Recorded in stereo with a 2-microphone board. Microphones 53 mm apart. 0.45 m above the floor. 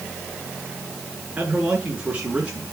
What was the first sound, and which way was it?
A man speaking, 25° right (ahead or behind).